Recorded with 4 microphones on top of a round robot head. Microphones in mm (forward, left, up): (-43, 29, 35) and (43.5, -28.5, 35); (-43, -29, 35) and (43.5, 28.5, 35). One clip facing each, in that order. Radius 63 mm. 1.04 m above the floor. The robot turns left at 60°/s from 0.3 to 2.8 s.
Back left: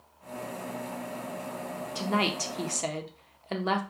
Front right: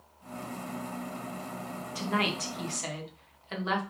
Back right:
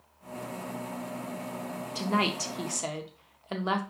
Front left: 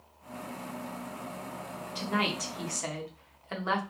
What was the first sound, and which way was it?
A woman speaking, 155° right.